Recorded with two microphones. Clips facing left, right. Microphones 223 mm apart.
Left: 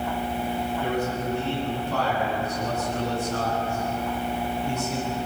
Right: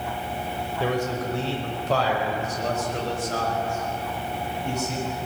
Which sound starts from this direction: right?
A man speaking, at 0.8 s.